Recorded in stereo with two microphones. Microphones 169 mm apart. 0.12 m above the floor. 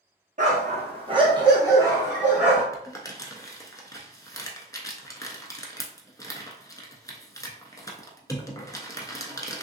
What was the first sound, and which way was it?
A dog barking, 45° right (ahead or behind).